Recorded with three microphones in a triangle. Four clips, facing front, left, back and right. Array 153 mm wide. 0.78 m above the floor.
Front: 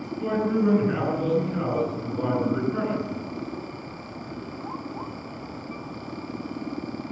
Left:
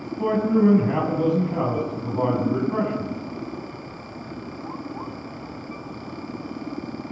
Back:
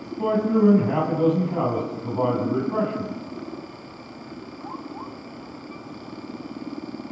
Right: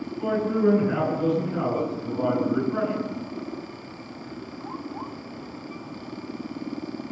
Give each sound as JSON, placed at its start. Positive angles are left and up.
{"t": 0.2, "sound": "a man speaking", "azimuth_deg": 145, "distance_m": 7.5}